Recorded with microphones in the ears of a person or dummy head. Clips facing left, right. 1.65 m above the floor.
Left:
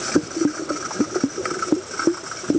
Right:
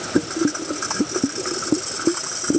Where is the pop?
I don't hear a pop.